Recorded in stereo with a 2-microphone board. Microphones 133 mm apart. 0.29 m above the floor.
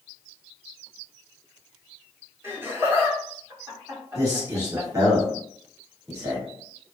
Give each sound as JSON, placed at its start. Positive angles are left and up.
{"t": 2.4, "sound": "laughter", "side_deg": -25, "distance_m": 1.9}
{"t": 4.2, "sound": "a man speaking", "side_deg": -25, "distance_m": 1.3}